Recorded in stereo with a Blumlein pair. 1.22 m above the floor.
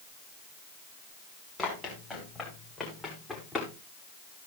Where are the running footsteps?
10° left, 9 m.